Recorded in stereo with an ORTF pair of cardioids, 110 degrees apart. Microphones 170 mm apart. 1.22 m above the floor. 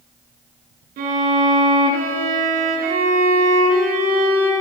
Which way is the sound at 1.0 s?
65° right.